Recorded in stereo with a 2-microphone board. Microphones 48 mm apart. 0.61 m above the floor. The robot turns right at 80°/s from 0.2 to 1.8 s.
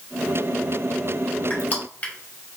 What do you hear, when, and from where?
1.5 s crushing: 35° left (ahead or behind), 1.4 m; by 2.1 s 30° left (ahead or behind), 1.4 m